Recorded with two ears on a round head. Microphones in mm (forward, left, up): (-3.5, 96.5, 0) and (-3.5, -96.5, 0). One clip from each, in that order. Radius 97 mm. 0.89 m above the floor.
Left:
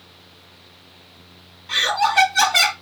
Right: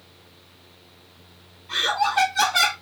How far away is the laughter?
About 1.4 m.